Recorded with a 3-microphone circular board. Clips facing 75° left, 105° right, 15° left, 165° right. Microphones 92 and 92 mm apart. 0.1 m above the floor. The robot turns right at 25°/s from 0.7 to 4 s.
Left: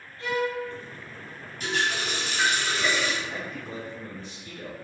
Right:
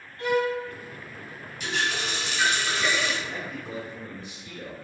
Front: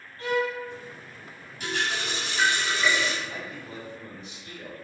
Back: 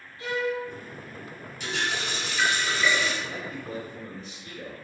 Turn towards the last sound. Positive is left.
turn(degrees=-165)